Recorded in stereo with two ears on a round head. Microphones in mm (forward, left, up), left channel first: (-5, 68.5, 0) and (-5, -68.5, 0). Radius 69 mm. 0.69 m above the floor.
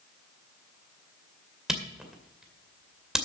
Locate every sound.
1.7 s a camera shutter: 5° right (ahead or behind), 2 m